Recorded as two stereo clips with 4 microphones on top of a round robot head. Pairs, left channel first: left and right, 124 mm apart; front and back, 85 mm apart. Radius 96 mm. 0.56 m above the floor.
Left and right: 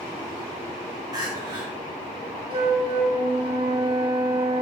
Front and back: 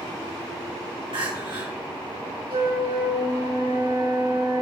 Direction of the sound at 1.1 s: 150° right.